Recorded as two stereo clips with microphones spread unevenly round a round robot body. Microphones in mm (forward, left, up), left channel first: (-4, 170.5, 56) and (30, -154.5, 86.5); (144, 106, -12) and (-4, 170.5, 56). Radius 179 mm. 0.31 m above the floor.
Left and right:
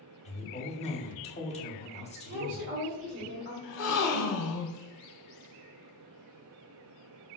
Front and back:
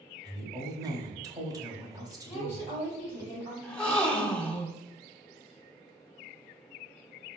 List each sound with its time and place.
0.2 s a woman speaking: 65° left, 1.1 m
2.2 s a woman speaking: 60° right, 1.6 m
3.6 s a gasp: 55° left, 0.9 m